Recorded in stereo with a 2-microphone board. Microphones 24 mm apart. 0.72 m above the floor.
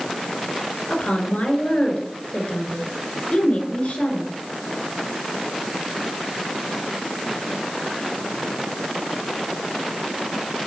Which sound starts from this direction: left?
A woman speaking, at 0.9 s.